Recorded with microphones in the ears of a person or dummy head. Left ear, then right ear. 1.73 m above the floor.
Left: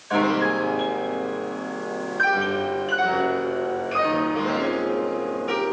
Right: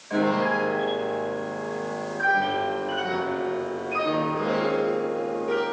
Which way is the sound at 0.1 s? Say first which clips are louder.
Left 2 dB; 45° left (ahead or behind).